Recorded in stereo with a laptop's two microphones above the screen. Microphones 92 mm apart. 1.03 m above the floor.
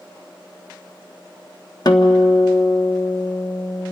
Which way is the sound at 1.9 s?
50° left (ahead or behind).